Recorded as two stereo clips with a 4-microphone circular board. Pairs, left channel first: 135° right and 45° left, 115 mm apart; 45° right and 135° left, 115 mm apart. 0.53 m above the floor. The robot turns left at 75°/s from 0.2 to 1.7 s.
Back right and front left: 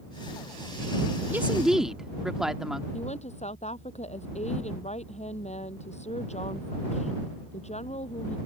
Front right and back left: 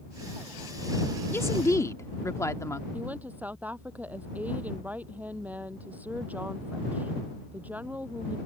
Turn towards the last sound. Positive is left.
turn(degrees=-150)